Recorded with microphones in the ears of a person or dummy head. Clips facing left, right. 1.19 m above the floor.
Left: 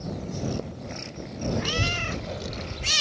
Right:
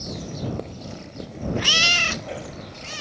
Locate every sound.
1.6 s a child speaking: 40° left (ahead or behind); by 2.9 s 50° left (ahead or behind)